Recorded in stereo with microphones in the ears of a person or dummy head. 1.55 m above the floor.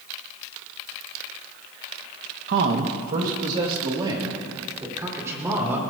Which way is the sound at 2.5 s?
75° right (ahead or behind).